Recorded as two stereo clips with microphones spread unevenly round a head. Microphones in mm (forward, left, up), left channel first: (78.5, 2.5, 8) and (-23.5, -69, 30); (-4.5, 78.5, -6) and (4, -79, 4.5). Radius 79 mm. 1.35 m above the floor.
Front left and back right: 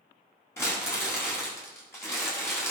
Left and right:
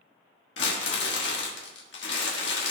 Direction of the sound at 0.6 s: 110° left.